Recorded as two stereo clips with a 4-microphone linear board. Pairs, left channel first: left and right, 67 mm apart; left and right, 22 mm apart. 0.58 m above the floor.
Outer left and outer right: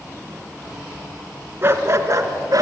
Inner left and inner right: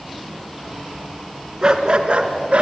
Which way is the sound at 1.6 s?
35° right (ahead or behind).